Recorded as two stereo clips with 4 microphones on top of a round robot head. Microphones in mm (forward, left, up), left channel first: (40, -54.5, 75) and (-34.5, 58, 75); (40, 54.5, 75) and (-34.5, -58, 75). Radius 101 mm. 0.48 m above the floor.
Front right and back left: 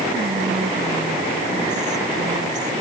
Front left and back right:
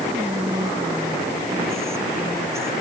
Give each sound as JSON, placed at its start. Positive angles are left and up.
{"t": 0.1, "sound": "whispering", "azimuth_deg": 165}